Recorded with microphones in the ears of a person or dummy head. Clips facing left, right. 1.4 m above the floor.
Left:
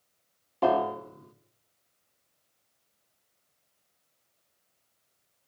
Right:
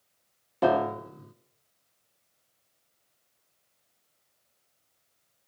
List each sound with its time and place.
0.6 s a piano: 10° right (ahead or behind), 1.4 m